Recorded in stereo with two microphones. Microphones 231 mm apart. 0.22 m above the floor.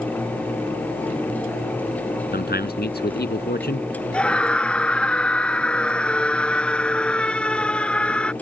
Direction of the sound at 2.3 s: 45° left (ahead or behind).